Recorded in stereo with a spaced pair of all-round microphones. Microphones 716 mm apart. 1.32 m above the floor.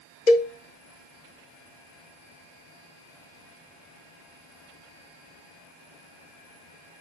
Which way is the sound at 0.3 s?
85° left.